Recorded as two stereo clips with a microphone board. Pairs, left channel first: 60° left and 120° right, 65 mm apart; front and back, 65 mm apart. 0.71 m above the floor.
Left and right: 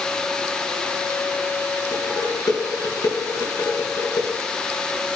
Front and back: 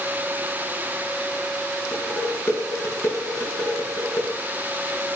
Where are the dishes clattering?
55° left, 5.5 m.